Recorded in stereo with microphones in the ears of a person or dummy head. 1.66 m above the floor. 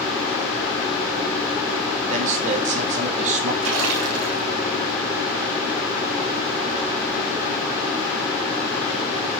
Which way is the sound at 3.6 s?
80° right.